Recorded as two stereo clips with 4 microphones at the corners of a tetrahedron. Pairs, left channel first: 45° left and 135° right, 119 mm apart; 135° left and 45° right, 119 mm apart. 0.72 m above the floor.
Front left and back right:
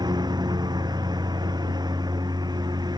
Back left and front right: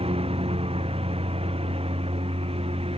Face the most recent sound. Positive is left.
turn(degrees=-80)